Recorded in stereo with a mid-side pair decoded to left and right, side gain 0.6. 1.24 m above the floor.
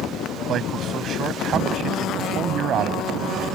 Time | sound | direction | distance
0.5 | a man speaking | 50° right | ?